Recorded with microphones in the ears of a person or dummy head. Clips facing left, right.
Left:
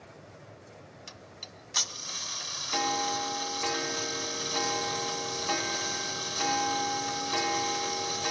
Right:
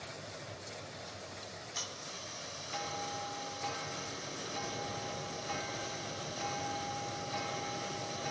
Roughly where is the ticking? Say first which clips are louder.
Right 2 dB; left.